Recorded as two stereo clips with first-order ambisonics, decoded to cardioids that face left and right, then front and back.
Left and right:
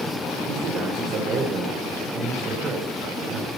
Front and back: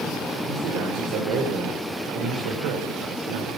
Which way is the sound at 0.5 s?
140° right.